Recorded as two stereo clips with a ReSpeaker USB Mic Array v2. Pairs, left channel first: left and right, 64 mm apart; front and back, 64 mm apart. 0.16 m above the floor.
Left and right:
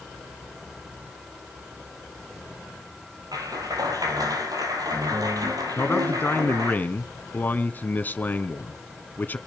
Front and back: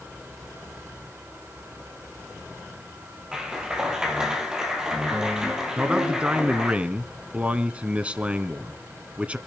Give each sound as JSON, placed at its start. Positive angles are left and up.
{"t": 3.3, "sound": "a clap", "azimuth_deg": -100, "distance_m": 3.5}
{"t": 5.8, "sound": "a man speaking", "azimuth_deg": 125, "distance_m": 1.6}